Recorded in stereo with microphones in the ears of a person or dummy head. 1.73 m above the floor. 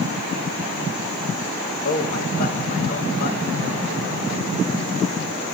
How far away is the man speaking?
About 2.5 m.